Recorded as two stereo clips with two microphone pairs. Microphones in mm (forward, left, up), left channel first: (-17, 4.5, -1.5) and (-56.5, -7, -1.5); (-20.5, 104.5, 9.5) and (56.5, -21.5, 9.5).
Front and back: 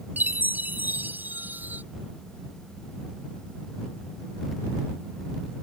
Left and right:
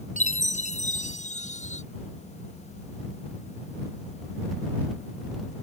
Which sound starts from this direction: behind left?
A chime, at 0.2 s.